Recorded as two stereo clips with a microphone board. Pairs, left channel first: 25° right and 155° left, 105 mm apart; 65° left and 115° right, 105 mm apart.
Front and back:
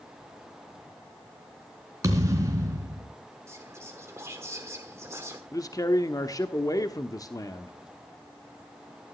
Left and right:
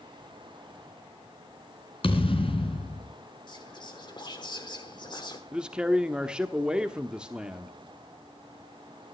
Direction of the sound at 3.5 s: 100° left.